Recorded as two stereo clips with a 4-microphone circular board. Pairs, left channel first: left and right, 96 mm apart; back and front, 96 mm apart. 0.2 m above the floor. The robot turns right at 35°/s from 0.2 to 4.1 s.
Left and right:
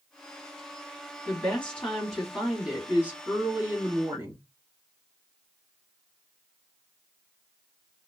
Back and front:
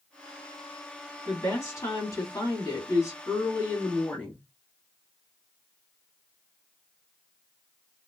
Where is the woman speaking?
145° left, 1.6 m; by 4.4 s 115° right, 1.6 m.